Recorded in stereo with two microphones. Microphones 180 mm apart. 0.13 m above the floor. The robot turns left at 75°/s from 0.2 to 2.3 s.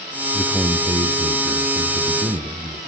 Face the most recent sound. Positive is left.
turn(degrees=-140)